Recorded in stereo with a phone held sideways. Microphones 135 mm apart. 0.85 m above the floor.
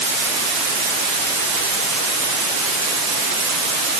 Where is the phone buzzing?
No phone buzzing in this recording.